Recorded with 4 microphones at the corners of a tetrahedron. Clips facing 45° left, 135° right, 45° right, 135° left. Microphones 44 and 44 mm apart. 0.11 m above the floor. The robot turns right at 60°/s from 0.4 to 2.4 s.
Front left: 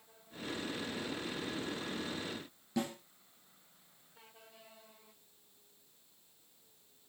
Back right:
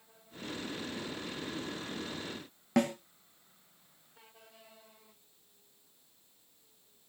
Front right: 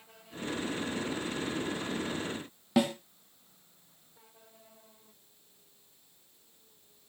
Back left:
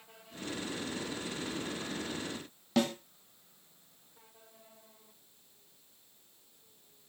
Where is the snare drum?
120° right, 0.6 m.